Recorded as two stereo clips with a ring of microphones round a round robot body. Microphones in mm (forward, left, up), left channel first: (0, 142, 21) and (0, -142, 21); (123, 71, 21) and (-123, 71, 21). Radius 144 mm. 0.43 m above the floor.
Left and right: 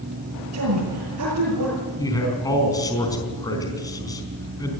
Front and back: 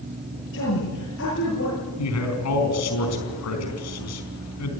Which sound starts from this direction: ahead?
A man speaking, at 2.0 s.